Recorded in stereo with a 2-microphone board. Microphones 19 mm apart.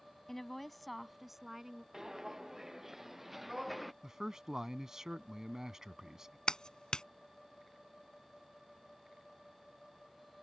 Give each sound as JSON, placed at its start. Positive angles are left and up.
{"t": 0.3, "sound": "a woman speaking", "side_deg": 20}
{"t": 1.9, "sound": "footsteps", "side_deg": -25}
{"t": 4.0, "sound": "a man speaking", "side_deg": -30}
{"t": 6.5, "sound": "a clap", "side_deg": 50}